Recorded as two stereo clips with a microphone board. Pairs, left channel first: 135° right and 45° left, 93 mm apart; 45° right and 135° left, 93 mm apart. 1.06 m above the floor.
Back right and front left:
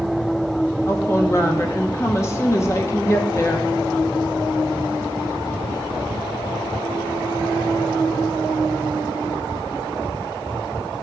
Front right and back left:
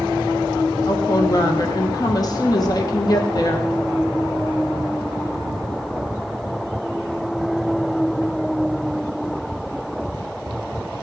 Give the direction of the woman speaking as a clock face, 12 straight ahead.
3 o'clock.